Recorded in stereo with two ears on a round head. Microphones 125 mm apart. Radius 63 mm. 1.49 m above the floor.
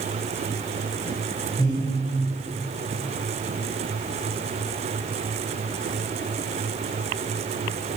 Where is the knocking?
No knocking in this recording.